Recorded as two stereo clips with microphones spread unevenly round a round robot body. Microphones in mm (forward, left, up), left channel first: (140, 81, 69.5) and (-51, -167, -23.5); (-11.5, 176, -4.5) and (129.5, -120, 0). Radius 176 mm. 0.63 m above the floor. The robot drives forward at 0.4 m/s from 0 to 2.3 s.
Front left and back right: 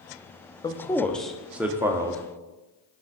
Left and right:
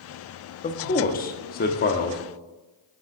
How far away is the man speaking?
About 0.8 m.